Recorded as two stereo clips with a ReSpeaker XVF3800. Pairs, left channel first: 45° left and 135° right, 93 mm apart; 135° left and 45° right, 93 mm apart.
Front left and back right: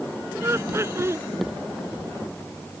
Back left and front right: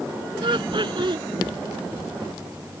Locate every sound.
0.4 s laughter: 75° right